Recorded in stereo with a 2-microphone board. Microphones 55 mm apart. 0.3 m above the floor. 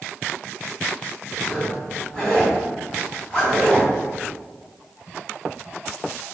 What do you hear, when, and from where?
1.4 s a zipper: 15° left (ahead or behind), 1.9 m